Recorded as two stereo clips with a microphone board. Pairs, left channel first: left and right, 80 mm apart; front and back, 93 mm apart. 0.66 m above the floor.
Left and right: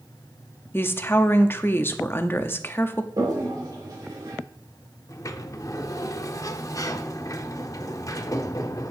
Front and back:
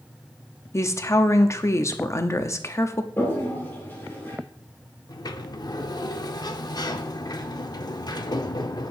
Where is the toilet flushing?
65° right, 2 m.